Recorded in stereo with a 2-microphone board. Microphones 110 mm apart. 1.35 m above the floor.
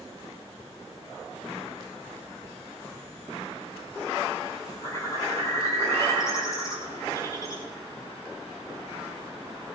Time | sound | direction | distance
4.8 | a bird | 30° left (ahead or behind) | 7 m